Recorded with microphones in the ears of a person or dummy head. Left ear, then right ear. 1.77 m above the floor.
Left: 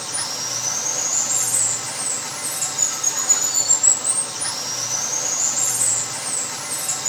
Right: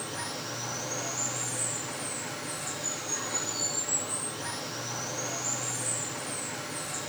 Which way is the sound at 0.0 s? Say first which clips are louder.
Left 9 dB; 85° left.